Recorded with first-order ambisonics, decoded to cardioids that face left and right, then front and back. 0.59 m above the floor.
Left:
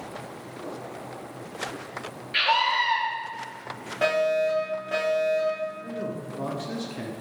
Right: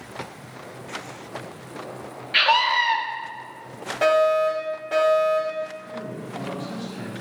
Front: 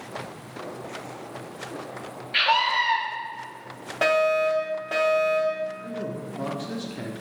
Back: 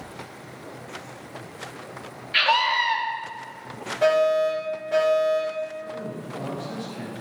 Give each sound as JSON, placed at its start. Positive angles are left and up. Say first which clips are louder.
{"t": 2.3, "sound": "a scream", "louder": "right 4 dB, back 1 dB", "azimuth_deg": -110, "distance_m": 0.6}
{"t": 4.0, "sound": "a fire alarm", "louder": "right 5 dB, back 1 dB", "azimuth_deg": -10, "distance_m": 2.5}
{"t": 5.8, "sound": "a man speaking", "louder": "left 1 dB, front 1 dB", "azimuth_deg": 40, "distance_m": 0.8}